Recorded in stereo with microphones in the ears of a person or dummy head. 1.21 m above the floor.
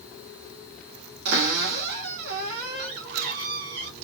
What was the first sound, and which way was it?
A cupboard door, 70° right (ahead or behind).